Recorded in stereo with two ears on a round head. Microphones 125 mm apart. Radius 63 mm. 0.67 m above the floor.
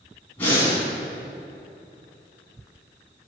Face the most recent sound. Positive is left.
turn(degrees=15)  # may be behind; listen again after turning